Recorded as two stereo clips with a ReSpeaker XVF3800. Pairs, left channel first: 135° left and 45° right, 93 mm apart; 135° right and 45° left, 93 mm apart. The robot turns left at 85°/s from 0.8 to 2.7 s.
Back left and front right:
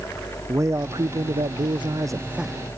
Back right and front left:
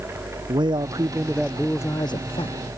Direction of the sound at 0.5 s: 10° left.